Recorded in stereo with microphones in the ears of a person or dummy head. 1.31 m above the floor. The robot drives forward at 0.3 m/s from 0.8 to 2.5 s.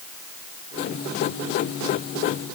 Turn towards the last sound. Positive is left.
No sound to turn to.